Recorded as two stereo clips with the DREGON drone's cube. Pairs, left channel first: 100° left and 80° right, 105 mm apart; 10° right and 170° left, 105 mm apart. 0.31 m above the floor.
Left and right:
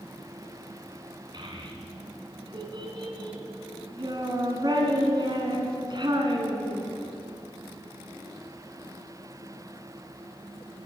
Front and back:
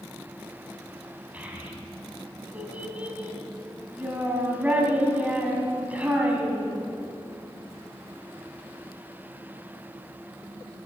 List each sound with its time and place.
1.3 s a child speaking: 115° right, 2.5 m